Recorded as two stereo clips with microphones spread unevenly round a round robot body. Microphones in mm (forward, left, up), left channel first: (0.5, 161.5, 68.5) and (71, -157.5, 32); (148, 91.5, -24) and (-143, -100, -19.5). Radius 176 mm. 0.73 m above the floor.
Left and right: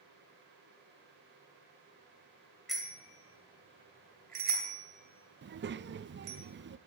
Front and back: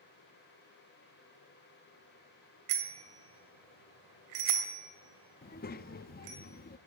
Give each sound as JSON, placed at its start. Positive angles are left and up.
{"t": 2.7, "sound": "a bicycle bell", "azimuth_deg": -165, "distance_m": 2.5}
{"t": 5.4, "sound": "a child speaking", "azimuth_deg": -30, "distance_m": 0.5}